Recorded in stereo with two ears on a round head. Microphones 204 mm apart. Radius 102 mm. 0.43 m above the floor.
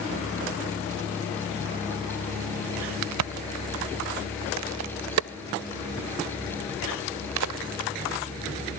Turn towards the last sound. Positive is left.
turn(degrees=-75)  # may be behind; listen again after turning